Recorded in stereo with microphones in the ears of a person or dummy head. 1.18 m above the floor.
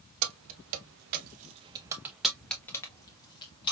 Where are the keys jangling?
80° right, 1.0 m; by 3.7 s 30° left (ahead or behind), 1.5 m.